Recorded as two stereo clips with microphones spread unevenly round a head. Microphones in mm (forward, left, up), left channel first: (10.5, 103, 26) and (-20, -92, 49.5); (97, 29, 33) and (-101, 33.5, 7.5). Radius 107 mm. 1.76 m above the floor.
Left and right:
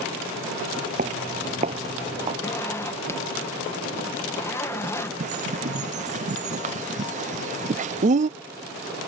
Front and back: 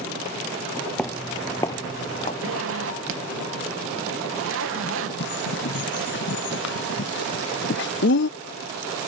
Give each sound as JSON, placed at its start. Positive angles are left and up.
{"t": 1.0, "sound": "footsteps", "azimuth_deg": -80}
{"t": 2.4, "sound": "a zipper", "azimuth_deg": 160}
{"t": 5.2, "sound": "a bird", "azimuth_deg": -45}